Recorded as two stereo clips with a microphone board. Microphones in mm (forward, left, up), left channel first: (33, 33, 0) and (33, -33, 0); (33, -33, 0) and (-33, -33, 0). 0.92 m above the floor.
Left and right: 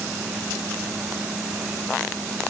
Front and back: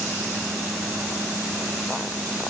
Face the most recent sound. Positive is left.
No sound to turn to.